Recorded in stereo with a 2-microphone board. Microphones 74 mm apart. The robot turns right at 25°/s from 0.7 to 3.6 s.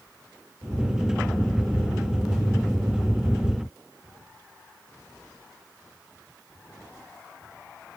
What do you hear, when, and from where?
Only background noise.